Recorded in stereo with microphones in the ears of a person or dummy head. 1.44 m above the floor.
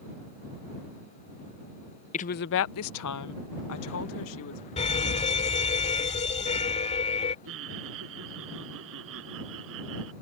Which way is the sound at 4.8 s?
30° left (ahead or behind).